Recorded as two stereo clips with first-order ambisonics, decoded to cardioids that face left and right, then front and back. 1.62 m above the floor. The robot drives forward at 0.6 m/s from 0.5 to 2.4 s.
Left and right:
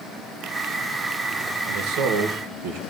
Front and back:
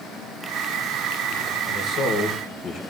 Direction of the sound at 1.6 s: 55° right.